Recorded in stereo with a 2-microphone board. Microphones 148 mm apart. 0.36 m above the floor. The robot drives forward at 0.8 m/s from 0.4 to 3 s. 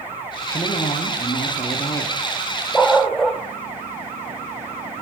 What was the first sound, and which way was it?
A woman speaking, 35° left (ahead or behind).